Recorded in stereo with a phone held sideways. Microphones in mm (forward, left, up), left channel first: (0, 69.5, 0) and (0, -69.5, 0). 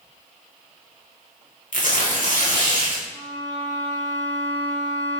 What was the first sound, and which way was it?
Tearing paper, 65° left (ahead or behind).